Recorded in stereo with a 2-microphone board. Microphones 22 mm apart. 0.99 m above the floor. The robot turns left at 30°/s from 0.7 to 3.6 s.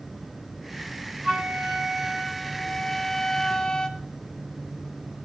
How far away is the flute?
About 2 m.